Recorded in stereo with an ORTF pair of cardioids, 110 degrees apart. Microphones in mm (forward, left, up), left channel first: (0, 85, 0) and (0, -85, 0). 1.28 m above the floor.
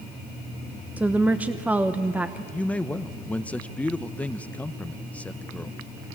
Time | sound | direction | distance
1.0 | a woman speaking | 10° right | 0.8 m
2.5 | a man speaking | 10° left | 0.7 m